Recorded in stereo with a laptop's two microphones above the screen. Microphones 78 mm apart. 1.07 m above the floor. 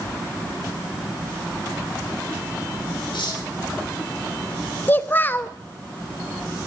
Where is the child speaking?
25° left (ahead or behind), 0.7 m.